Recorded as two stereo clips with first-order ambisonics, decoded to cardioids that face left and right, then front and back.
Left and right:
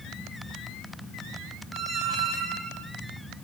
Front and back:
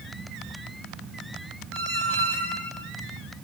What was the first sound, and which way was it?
A squeak, 155° right.